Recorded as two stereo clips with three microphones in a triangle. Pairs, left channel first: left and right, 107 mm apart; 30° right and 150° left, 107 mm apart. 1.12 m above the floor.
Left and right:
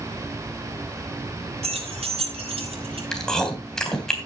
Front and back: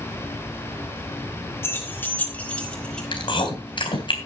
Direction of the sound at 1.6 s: 95° right.